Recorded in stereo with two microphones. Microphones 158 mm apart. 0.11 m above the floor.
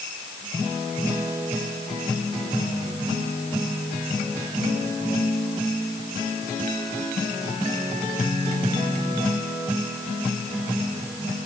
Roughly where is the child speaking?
No child speaking in this recording.